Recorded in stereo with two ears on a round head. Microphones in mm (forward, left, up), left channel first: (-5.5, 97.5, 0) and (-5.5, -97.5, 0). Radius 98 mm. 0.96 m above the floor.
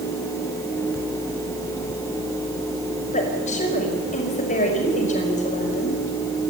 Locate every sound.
3.1 s a woman speaking: 35° left (ahead or behind), 5.5 m